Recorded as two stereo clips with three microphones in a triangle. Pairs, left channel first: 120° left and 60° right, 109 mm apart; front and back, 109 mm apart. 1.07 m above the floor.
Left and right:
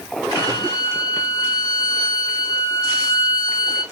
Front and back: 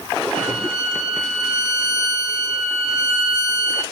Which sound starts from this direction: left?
A violin, at 0.3 s.